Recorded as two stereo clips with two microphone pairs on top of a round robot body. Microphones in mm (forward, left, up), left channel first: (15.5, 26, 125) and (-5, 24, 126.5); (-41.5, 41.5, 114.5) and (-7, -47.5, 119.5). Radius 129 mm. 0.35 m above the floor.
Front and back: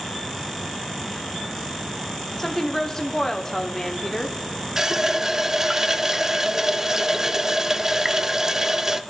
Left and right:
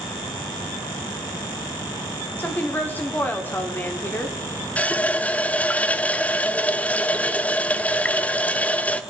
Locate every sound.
2.4 s a woman speaking: 60° left, 1.4 m
4.8 s a running tap: 150° left, 0.7 m